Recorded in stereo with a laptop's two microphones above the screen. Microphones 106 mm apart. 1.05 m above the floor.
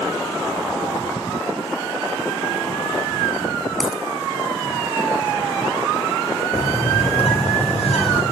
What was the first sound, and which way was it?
A dropped coin, centre (ahead or behind).